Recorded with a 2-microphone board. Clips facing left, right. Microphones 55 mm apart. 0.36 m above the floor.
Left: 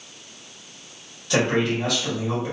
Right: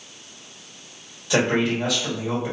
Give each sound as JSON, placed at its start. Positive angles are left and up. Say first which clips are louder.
{"t": 1.3, "sound": "a man speaking", "louder": "right 1 dB", "side_deg": -5, "distance_m": 1.3}